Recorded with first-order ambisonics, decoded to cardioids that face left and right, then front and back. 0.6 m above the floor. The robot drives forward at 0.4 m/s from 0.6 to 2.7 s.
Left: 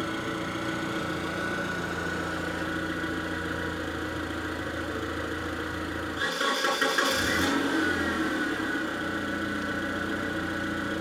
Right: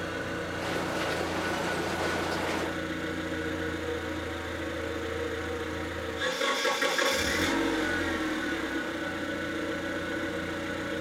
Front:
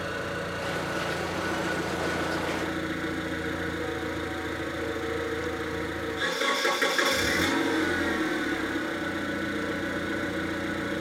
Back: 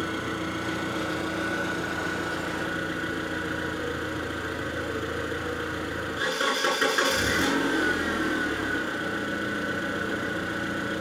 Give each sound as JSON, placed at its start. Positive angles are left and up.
{"t": 0.0, "sound": "an engine running", "azimuth_deg": 140, "distance_m": 8.0}